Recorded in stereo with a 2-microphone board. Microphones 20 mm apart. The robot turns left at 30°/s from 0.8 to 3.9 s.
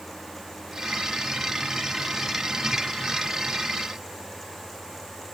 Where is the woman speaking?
No woman speaking in this recording.